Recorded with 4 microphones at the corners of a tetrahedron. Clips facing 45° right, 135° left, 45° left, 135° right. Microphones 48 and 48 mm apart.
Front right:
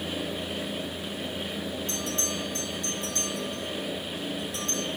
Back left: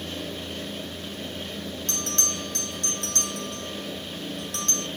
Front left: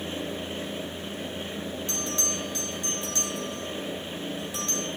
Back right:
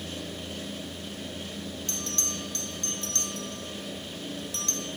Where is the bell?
120° left, 4 m.